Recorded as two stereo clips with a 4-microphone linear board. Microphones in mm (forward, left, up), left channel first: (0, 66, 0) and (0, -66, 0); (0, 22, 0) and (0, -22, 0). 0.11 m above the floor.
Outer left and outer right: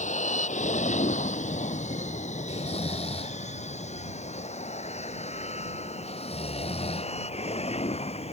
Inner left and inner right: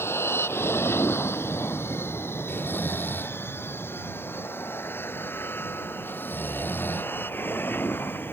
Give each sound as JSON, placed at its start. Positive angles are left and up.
{"t": 0.0, "sound": "an aircraft", "side_deg": 65}
{"t": 2.5, "sound": "snoring", "side_deg": 50}